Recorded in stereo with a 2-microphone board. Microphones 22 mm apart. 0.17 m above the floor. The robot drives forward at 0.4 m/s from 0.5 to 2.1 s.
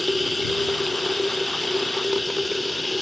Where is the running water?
5° left (ahead or behind).